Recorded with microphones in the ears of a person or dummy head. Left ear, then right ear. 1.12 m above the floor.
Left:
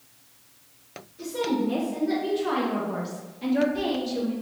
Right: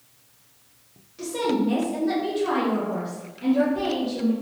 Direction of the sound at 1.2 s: 45° right (ahead or behind).